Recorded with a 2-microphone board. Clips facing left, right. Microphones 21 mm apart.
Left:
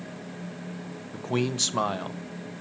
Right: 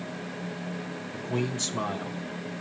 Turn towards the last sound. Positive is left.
turn(degrees=35)  # may be behind; listen again after turning